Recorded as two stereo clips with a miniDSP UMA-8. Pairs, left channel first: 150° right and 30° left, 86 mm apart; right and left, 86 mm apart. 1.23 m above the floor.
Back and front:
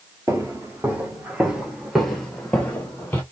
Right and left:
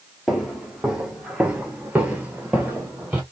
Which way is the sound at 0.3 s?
5° left.